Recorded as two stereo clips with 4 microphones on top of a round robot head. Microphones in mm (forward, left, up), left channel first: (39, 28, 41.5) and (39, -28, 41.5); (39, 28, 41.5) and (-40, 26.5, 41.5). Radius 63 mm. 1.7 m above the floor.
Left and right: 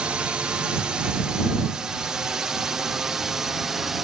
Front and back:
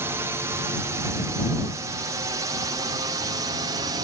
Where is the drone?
150° right; by 4.1 s 175° right.